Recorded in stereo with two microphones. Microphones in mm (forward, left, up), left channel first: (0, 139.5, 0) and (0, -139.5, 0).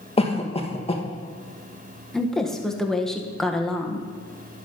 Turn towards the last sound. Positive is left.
turn(degrees=0)  # may be behind; listen again after turning